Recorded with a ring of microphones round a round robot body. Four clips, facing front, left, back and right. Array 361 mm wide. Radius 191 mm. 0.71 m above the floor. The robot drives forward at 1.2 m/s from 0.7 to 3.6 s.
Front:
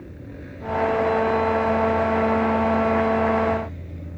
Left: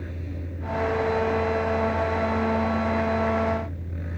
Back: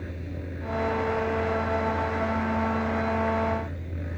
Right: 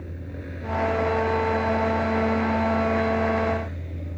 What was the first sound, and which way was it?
Only background noise.